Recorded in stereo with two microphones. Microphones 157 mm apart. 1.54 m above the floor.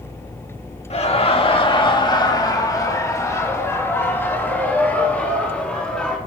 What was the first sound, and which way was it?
Laughter, 45° left (ahead or behind).